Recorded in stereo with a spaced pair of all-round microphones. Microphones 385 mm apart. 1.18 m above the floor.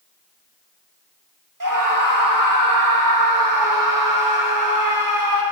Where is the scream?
50° right (ahead or behind), 1.9 m.